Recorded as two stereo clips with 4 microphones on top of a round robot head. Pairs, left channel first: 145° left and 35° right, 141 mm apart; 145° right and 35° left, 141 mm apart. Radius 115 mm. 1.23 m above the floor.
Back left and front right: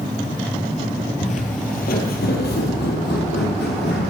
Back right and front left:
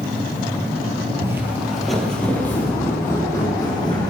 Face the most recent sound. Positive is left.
turn(degrees=150)